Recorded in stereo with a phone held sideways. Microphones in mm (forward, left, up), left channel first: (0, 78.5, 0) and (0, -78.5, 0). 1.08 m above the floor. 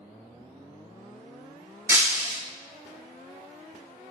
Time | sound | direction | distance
1.9 | breaking glass | 15° right (ahead or behind) | 0.6 m